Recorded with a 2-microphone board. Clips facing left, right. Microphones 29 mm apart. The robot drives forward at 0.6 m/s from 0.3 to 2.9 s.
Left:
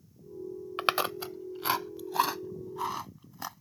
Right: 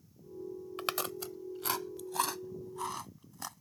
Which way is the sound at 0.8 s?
35° left (ahead or behind).